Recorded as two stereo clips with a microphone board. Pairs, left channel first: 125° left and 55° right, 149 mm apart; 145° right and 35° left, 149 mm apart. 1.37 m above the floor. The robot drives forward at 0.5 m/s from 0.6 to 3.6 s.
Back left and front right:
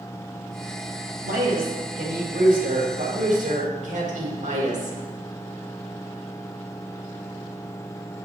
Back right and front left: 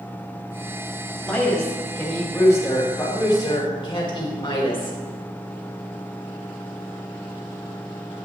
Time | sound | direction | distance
1.2 | a woman speaking | 60° right | 2.5 m